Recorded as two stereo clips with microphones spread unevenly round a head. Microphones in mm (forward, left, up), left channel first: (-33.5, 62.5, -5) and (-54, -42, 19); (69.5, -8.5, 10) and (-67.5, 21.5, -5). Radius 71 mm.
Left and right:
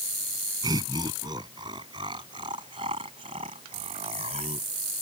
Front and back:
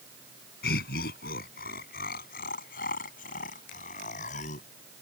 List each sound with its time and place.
0.6 s laughter: 35° right; by 4.7 s 55° right